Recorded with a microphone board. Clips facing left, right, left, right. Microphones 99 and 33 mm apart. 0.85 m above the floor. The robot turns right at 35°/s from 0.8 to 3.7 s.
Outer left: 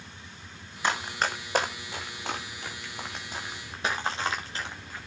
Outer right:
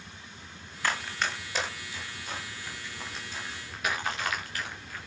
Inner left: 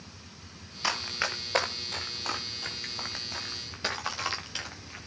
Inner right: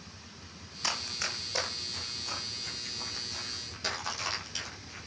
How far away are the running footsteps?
About 3 m.